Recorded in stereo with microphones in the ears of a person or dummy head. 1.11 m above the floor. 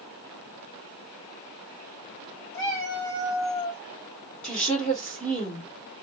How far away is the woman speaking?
About 1.6 m.